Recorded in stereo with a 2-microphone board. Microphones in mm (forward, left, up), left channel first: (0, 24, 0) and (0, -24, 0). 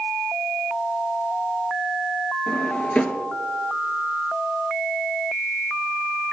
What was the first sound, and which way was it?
A drawer, 25° left (ahead or behind).